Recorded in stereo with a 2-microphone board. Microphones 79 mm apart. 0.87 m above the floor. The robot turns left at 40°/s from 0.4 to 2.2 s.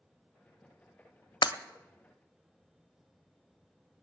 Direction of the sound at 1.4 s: 75° left (ahead or behind).